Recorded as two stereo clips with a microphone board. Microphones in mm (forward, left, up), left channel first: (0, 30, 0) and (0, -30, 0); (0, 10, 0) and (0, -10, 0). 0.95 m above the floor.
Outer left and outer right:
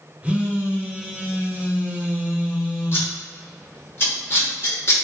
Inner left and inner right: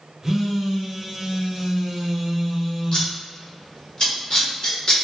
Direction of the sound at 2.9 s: 40° left (ahead or behind).